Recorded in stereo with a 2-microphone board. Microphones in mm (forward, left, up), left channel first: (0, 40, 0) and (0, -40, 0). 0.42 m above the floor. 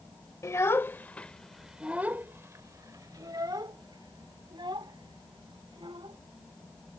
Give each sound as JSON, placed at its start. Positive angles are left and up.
{"t": 0.4, "sound": "a child speaking", "side_deg": 35}